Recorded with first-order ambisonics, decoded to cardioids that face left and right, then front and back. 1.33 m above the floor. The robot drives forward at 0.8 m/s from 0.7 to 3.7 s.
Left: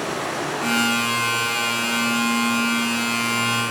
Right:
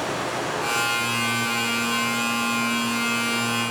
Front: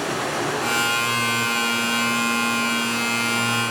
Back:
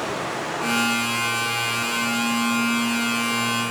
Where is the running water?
10° left, 7.5 m.